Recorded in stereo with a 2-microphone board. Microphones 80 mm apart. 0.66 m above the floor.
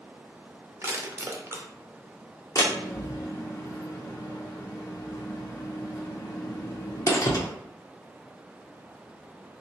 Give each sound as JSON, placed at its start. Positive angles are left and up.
{"t": 0.8, "sound": "crushing", "side_deg": -35, "distance_m": 0.7}
{"t": 2.5, "sound": "a door slam", "side_deg": 45, "distance_m": 0.9}